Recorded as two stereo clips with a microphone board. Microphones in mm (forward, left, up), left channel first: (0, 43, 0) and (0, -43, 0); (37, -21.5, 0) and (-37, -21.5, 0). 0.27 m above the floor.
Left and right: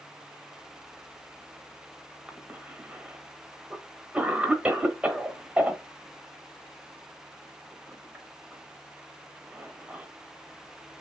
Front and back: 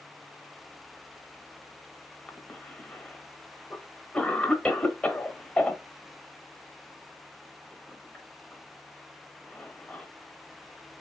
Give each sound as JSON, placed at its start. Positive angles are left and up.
{"t": 2.3, "sound": "a cough", "azimuth_deg": -45, "distance_m": 1.0}